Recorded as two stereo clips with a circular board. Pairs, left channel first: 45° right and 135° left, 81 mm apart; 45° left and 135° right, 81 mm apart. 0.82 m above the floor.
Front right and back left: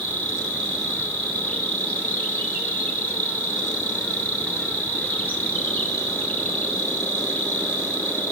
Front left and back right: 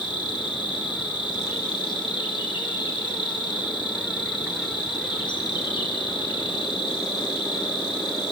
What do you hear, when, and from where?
0.0 s an insect: 25° left, 6 m